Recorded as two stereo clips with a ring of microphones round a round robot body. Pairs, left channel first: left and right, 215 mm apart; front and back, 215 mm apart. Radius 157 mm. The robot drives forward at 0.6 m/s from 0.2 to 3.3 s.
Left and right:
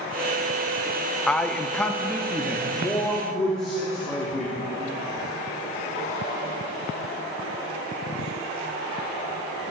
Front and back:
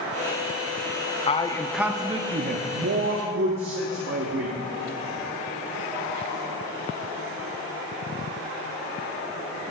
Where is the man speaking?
10° left, 0.7 m; by 4.6 s 175° left, 1.1 m.